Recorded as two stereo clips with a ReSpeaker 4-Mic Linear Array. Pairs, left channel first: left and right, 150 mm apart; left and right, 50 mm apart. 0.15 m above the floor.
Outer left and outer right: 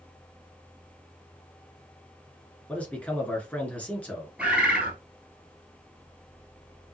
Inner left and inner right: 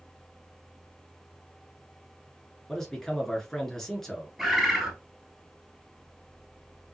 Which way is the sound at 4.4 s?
5° right (ahead or behind).